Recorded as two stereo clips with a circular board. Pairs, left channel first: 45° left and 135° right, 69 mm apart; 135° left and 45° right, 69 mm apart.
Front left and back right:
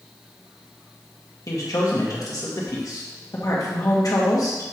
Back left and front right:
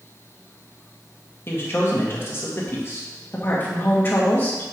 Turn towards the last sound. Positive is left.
turn(degrees=75)